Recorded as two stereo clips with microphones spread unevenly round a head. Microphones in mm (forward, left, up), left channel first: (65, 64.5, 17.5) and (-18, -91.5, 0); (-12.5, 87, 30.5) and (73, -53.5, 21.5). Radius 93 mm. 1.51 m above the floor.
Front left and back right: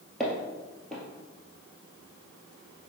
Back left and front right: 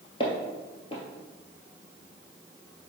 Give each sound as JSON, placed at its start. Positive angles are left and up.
{"t": 0.2, "sound": "footsteps", "azimuth_deg": 140, "distance_m": 1.7}